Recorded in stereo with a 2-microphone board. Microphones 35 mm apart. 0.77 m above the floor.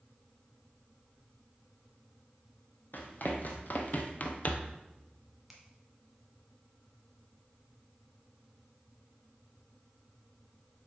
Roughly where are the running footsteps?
Left.